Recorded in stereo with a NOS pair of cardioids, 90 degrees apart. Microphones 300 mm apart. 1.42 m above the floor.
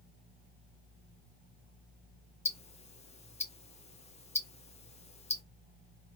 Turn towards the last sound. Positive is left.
turn(degrees=20)